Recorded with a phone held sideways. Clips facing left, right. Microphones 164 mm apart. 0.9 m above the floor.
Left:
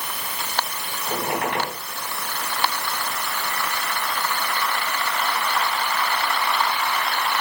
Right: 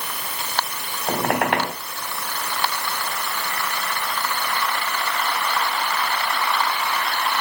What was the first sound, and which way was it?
A squeak, 70° right (ahead or behind).